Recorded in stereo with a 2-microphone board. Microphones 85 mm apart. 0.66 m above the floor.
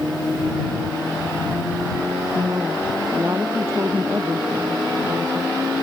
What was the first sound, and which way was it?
A woman speaking, 30° right (ahead or behind).